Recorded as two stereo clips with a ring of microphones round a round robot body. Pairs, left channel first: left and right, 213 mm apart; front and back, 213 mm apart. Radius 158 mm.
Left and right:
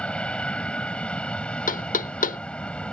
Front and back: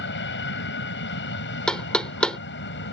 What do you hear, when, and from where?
0.0 s an aircraft: 5° left
1.7 s knocking: 85° left